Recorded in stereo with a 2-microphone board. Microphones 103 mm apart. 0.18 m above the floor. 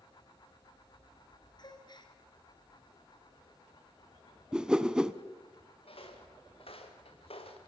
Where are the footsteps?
65° left (ahead or behind), 4.5 m.